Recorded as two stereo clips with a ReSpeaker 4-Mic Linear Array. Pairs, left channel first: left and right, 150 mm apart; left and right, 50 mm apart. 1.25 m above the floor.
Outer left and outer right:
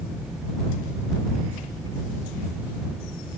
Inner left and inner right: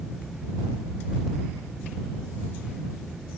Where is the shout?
I don't hear a shout.